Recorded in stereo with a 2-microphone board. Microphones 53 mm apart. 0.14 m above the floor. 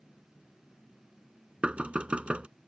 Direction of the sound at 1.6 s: 25° right (ahead or behind).